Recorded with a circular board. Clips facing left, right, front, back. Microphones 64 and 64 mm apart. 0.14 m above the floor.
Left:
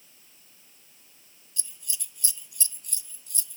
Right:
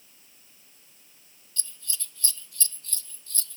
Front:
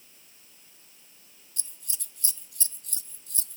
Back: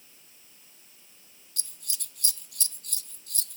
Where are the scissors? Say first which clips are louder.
Right 2 dB, back 4 dB; 165° left.